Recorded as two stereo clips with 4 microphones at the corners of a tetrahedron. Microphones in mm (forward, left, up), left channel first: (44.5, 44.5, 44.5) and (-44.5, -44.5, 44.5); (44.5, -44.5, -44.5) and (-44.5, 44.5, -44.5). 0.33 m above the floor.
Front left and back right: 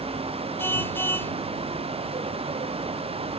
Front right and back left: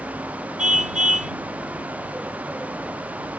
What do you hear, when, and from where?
0.6 s a car horn: 120° left